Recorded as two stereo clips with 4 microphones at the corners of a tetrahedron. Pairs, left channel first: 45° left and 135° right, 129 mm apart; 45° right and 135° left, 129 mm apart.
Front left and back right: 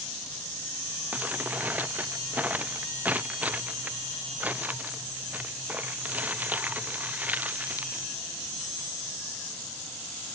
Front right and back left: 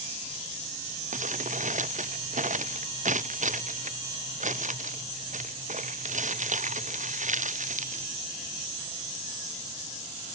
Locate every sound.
1.1 s crumpling: 150° left